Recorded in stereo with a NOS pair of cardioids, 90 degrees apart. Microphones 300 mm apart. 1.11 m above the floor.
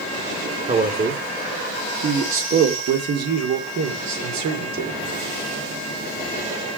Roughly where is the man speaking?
Ahead right.